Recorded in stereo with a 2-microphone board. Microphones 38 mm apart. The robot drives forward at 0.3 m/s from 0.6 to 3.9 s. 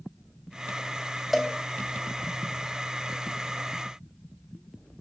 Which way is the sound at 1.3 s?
5° right (ahead or behind).